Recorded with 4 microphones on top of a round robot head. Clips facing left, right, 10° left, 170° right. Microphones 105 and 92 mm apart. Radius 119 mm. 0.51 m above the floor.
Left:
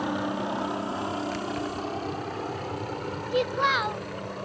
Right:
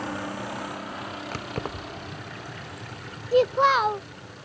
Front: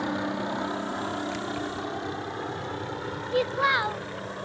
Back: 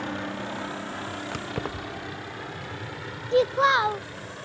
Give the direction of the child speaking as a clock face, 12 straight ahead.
4 o'clock.